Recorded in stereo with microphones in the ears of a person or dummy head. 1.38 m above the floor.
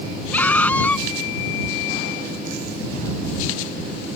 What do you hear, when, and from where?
0.3 s a scream: 5° left (ahead or behind)